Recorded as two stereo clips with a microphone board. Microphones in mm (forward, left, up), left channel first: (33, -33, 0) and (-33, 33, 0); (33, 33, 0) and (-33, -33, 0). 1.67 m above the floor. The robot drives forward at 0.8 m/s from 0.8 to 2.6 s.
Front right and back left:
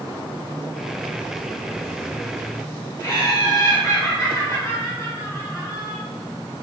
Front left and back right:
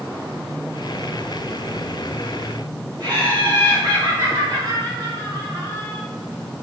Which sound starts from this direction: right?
Laughter, at 3.0 s.